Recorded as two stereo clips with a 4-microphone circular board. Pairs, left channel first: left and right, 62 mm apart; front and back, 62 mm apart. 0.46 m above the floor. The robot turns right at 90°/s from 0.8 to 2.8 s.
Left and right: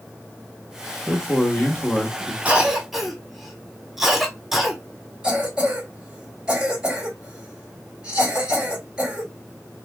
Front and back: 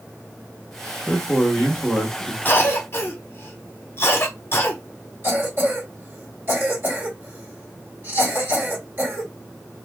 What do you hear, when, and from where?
1.1 s a man speaking: 25° left, 0.7 m; by 2.4 s 145° left, 0.7 m
2.5 s a cough: 35° right, 0.9 m; by 4.8 s 5° right, 0.9 m
5.2 s a cough: 155° right, 1.7 m